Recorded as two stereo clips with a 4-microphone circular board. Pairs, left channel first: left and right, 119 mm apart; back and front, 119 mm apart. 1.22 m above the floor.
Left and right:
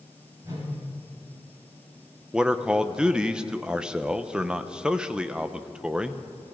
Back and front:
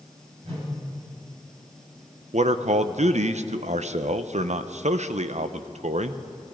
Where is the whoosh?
30° right, 7 m.